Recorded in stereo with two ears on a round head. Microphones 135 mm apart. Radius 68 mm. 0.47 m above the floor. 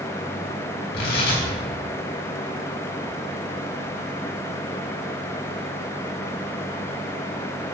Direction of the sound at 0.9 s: 70° left (ahead or behind).